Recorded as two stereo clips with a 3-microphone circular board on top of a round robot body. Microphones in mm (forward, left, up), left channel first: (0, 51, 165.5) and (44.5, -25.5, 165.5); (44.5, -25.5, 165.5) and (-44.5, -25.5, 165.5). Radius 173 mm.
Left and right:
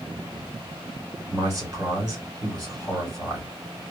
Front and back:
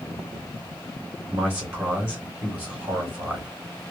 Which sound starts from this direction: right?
A man speaking, at 1.3 s.